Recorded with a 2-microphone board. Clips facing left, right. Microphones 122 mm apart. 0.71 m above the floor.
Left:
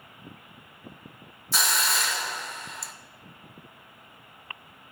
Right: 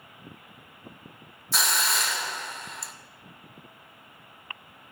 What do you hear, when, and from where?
1.5 s a hiss: centre (ahead or behind), 0.7 m